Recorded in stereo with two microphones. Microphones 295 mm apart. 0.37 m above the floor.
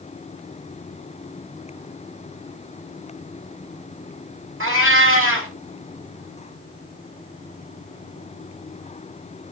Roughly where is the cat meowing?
Right.